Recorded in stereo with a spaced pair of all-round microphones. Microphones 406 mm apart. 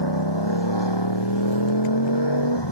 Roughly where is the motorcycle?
Left.